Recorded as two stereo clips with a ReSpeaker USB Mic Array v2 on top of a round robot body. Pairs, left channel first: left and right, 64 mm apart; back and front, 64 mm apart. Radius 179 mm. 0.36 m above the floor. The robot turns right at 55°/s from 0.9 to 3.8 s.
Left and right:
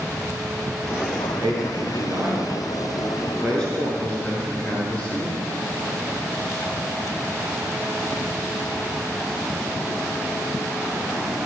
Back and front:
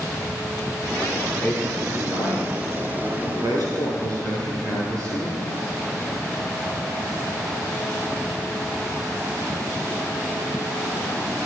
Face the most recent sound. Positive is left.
turn(degrees=25)